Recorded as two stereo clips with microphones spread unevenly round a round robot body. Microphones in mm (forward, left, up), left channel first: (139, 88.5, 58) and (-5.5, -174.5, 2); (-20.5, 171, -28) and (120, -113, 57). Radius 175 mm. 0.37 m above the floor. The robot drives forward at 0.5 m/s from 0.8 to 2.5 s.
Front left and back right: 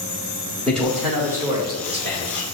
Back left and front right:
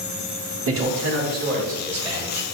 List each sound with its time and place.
0.7 s a man speaking: 50° right, 0.8 m; by 2.5 s 160° right, 1.0 m